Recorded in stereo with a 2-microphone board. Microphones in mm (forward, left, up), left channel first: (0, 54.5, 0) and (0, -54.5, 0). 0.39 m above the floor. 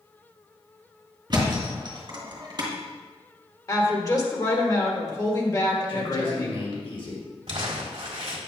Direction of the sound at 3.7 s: 35° left (ahead or behind).